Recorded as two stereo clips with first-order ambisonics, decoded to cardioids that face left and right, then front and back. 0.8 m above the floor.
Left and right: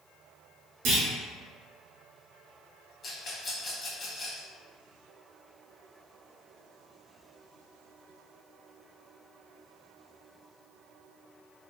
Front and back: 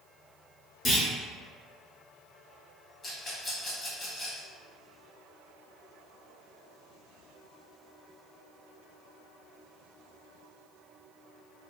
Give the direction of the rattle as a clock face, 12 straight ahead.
10 o'clock.